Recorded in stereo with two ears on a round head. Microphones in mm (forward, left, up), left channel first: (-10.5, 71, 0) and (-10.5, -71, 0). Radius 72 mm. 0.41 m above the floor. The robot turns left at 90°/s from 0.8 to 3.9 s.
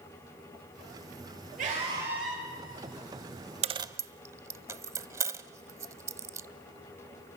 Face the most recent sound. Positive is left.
turn(degrees=-20)  # may be behind; listen again after turning